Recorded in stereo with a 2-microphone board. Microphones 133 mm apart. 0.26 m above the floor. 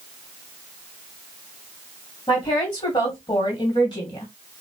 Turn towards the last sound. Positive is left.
turn(degrees=35)  # may be behind; listen again after turning